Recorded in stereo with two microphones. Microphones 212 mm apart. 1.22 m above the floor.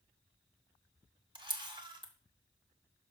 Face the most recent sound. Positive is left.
turn(degrees=-20)  # may be behind; listen again after turning